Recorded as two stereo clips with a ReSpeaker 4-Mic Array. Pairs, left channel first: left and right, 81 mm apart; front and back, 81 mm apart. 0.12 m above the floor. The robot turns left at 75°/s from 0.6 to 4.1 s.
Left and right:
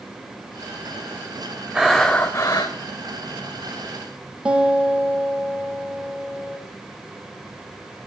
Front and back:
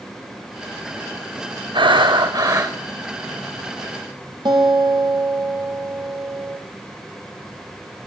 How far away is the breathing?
About 3 m.